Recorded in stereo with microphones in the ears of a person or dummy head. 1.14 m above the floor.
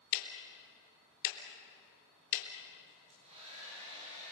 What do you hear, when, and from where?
0.1 s ticking: 70° left (ahead or behind), 3.5 m
2.9 s a hair dryer: 35° right (ahead or behind), 9 m